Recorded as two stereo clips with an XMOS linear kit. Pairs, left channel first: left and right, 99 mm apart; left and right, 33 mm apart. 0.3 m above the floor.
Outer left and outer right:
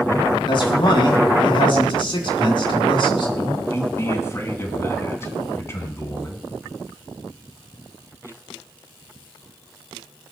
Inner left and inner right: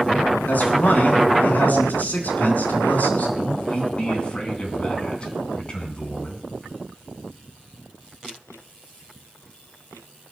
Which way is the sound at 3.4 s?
30° left (ahead or behind).